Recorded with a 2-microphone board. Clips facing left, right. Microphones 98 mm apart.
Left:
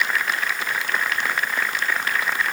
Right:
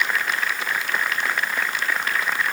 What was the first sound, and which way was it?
Only background noise.